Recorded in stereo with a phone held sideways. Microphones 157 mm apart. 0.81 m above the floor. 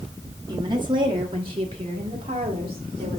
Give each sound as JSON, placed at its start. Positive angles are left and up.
{"t": 0.5, "sound": "a woman speaking", "side_deg": -25, "distance_m": 1.2}